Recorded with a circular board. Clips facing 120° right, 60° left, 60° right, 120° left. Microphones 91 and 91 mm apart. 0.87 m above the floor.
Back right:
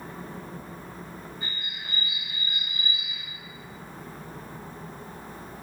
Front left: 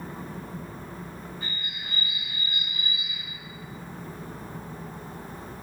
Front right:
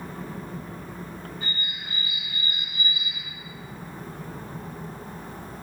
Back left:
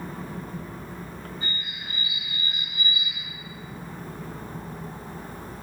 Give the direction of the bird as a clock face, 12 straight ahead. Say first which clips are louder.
Even, front right 1 dB; 6 o'clock.